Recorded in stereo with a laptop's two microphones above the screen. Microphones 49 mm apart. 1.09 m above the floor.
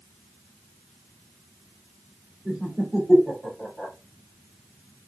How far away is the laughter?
About 2.5 m.